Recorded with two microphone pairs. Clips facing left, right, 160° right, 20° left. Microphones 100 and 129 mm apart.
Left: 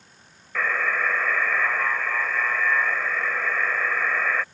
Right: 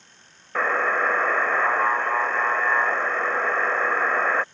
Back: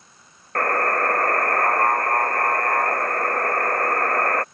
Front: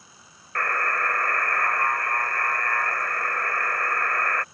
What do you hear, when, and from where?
0.6 s a buzzer: 135° right